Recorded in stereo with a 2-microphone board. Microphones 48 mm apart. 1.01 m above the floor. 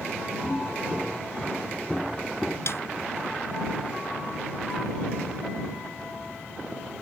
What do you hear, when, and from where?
0.4 s footsteps: centre (ahead or behind); by 2.6 s 10° left (ahead or behind)
2.7 s a snare drum: 60° left (ahead or behind)